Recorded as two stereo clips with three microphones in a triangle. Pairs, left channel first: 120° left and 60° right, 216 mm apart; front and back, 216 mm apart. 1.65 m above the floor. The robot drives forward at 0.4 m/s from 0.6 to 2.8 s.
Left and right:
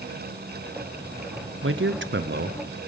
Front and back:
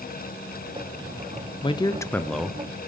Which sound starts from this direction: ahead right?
A man speaking, at 1.6 s.